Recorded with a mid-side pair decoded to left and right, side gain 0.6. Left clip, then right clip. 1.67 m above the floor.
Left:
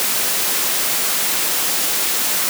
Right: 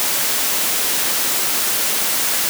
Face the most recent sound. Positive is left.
No sound to turn to.